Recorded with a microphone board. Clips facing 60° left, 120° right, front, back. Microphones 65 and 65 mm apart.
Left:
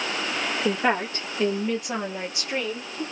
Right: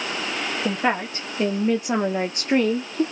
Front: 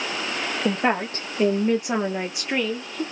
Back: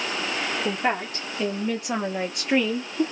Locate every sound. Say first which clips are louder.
0.7 s a woman speaking: even, front 5 dB; 40° right, 1.3 m; by 3.0 s 115° right, 0.8 m